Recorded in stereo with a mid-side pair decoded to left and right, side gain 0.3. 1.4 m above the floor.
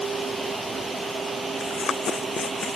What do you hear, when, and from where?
0.0 s a fan: 55° right
1.6 s running footsteps: 70° left